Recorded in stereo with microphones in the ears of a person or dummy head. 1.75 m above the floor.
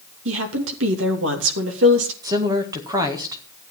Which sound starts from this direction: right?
A woman speaking, at 0.2 s.